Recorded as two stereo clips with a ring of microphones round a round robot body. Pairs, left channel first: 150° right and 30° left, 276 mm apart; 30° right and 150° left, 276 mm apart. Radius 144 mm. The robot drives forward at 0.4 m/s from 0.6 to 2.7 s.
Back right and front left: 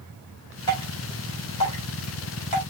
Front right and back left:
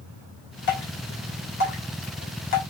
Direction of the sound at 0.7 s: 75° right.